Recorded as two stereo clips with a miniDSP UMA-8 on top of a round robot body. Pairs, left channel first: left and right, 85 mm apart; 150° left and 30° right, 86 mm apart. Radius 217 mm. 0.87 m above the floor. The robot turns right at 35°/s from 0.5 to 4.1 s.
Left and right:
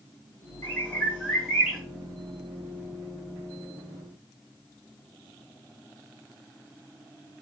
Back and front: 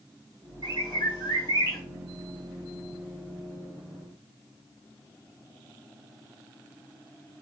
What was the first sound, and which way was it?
A bird, 150° left.